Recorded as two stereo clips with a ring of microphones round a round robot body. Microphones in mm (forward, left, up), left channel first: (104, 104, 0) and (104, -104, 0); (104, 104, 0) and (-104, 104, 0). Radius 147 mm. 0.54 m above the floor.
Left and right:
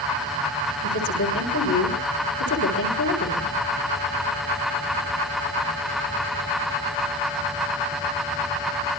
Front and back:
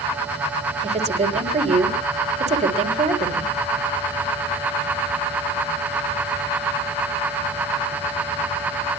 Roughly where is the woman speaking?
Behind left.